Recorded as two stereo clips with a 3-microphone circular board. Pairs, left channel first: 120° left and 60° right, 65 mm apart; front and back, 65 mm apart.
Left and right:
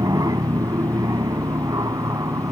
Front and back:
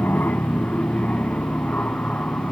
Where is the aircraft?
60° right; by 2.5 s 70° right.